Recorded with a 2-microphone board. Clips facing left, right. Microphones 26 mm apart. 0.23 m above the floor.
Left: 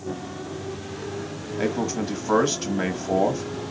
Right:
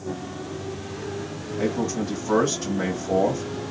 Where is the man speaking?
25° left (ahead or behind), 1.1 m.